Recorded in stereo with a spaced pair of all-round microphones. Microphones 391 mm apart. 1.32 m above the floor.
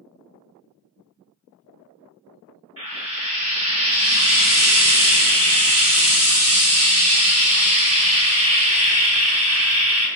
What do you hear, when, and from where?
2.8 s frying: 35° right (ahead or behind), 1.6 m